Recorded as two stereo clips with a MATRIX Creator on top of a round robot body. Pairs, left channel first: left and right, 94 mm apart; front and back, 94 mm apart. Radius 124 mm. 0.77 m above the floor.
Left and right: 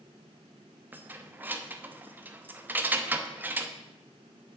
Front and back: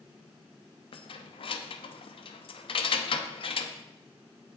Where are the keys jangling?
20° right, 1.0 m.